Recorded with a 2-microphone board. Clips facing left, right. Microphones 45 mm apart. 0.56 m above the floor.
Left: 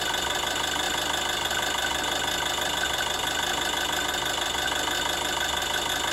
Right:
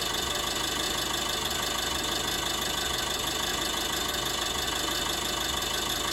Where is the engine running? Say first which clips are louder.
Left 4 dB; 50° left (ahead or behind), 1.1 m.